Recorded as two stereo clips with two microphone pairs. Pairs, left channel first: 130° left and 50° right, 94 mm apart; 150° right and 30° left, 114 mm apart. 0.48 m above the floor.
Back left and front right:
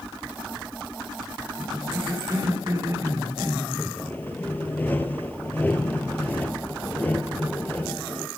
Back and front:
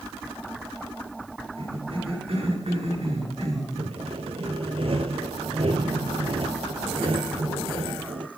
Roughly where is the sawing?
Ahead left.